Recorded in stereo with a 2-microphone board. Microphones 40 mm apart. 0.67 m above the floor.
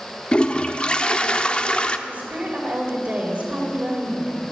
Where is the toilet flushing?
25° left (ahead or behind), 0.6 m.